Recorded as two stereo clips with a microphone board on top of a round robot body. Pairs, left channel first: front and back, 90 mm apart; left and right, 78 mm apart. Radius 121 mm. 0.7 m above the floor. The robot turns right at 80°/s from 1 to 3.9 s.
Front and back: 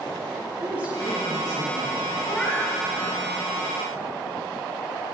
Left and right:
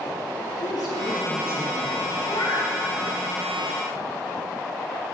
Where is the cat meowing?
60° left, 3.5 m; by 2.7 s 100° left, 3.5 m.